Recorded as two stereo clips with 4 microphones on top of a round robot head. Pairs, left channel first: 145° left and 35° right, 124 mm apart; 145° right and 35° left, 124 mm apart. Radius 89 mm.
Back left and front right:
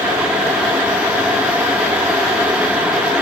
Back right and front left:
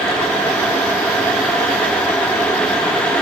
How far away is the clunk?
I don't hear a clunk.